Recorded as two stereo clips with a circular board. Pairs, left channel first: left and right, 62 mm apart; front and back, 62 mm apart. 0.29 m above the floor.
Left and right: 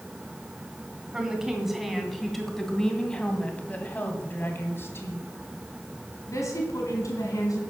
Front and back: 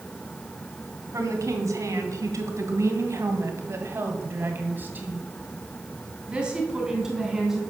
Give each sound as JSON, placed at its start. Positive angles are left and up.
{"t": 1.1, "sound": "a woman speaking", "azimuth_deg": -165, "distance_m": 2.5}